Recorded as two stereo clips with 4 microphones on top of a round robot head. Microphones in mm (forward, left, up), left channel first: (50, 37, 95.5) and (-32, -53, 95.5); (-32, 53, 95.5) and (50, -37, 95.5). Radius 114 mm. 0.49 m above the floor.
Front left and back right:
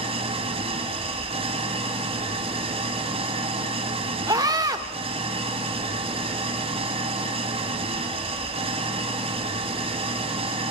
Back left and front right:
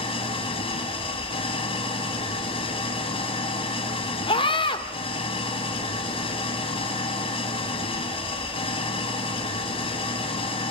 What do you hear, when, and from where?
0.0 s an engine running: 175° right, 1.5 m
4.3 s a scream: 170° left, 1.9 m